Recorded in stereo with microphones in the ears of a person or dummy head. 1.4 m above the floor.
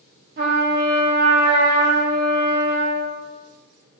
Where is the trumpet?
55° right (ahead or behind), 0.7 m.